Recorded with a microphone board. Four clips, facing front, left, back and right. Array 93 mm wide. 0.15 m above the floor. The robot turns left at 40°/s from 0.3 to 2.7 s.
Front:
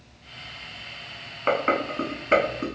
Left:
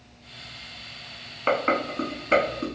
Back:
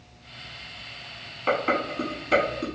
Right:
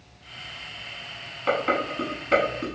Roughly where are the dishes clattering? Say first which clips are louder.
Left 1 dB, front 1 dB; ahead left.